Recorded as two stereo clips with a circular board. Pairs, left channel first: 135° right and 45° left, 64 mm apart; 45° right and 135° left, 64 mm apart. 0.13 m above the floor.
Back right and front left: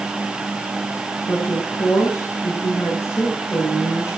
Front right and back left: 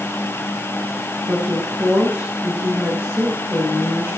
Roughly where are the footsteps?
No footsteps in this recording.